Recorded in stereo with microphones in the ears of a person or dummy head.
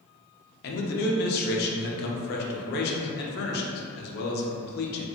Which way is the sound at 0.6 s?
55° left (ahead or behind).